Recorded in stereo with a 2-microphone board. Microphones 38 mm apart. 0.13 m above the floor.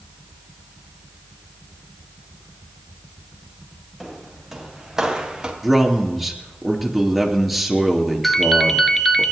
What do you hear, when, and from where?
4.0 s footsteps: centre (ahead or behind), 4 m; by 5.5 s 20° right (ahead or behind), 3 m
5.6 s a man speaking: 5° right (ahead or behind), 2.5 m
8.2 s a ringtone: 10° left (ahead or behind), 0.8 m